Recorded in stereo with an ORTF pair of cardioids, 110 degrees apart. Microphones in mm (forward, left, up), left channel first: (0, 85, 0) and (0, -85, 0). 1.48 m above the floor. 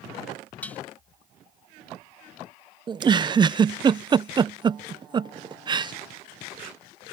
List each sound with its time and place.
0.6 s dishes clattering: 10° left
2.9 s a giggle: 25° right